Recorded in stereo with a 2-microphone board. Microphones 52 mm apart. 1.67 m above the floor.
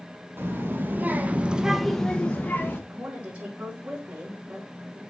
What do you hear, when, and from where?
0.4 s a child speaking: 45° right (ahead or behind), 1.6 m; by 2.8 s 35° left (ahead or behind), 1.1 m
2.9 s a woman speaking: 30° right (ahead or behind), 4 m